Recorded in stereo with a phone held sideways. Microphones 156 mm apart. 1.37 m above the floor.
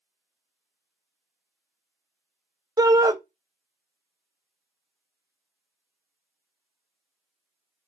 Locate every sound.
2.8 s a shout: 20° right (ahead or behind), 0.6 m